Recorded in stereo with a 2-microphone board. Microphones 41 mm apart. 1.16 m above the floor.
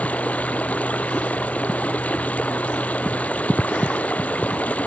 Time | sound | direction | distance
0.0 | running water | 40° left (ahead or behind) | ?